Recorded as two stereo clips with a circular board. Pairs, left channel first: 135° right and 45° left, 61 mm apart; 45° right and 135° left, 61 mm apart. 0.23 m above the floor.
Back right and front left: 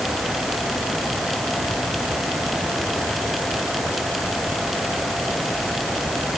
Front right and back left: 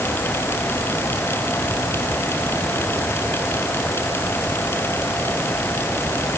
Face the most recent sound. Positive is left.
No sound to turn to.